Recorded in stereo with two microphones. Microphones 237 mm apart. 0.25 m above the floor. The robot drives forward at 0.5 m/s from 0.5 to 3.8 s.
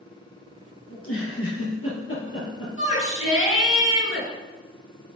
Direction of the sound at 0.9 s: 70° left (ahead or behind).